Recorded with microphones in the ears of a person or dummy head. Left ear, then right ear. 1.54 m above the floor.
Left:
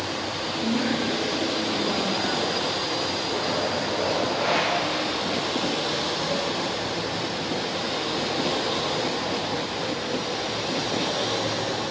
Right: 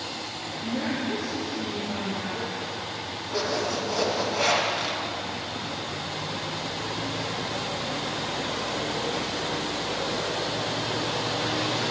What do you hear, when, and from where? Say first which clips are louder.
0.6 s a woman speaking: left 3 dB; 75° left (ahead or behind), 1.7 m; by 2.5 s 50° left (ahead or behind), 3 m
3.3 s a zipper: left 2 dB; 75° right (ahead or behind), 2.5 m